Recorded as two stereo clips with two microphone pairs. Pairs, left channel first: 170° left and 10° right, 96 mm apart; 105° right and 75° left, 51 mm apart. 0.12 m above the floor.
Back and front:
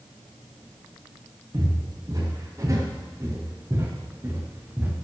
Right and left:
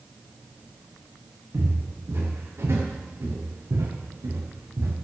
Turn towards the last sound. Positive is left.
turn(degrees=60)